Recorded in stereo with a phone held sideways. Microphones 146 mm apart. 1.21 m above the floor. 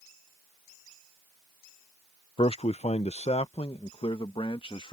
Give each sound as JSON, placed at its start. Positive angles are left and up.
{"t": 2.4, "sound": "a man speaking", "side_deg": 40}